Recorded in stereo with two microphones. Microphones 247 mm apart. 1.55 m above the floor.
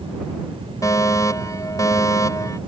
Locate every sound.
0.8 s a fire alarm: 15° left (ahead or behind)